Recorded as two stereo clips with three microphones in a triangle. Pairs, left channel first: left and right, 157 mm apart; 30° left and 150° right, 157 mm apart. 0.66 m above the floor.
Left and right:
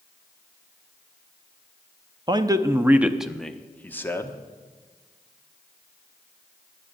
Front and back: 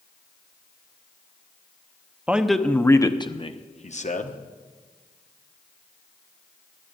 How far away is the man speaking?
About 0.8 m.